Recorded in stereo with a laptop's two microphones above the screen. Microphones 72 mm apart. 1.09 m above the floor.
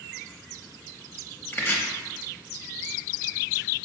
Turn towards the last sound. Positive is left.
turn(degrees=30)  # may be behind; listen again after turning